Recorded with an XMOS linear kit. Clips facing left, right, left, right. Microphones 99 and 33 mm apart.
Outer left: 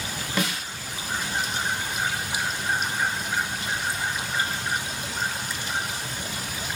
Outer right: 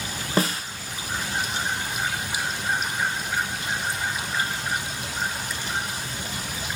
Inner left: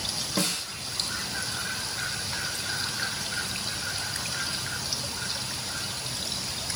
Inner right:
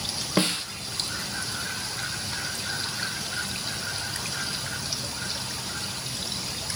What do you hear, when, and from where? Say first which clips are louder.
0.4 s a snare drum: outer right 4 dB, inner right 5 dB; 40° right (ahead or behind), 0.7 m